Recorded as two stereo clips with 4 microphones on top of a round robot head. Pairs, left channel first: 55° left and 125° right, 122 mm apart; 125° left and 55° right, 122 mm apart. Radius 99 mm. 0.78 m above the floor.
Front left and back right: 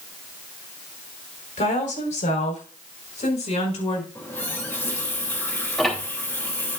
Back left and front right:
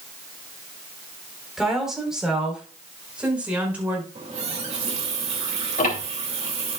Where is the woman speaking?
35° left, 4.5 m; by 4.0 s 25° left, 5.5 m.